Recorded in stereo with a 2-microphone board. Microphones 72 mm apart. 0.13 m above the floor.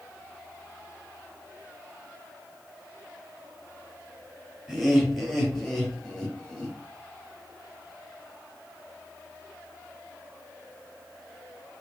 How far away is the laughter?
About 3.5 m.